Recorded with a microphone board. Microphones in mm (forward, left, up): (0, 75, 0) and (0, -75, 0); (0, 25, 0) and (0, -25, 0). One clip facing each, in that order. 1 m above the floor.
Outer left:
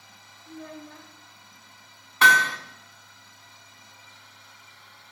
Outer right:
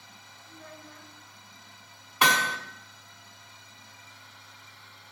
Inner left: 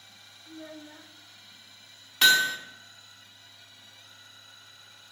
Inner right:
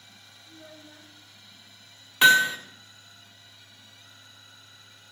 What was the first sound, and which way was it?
A child speaking, 85° left.